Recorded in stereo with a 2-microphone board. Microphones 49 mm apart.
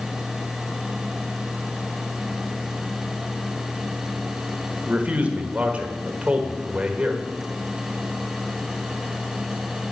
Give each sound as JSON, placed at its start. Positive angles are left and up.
{"t": 4.9, "sound": "a man speaking", "side_deg": -30, "distance_m": 1.5}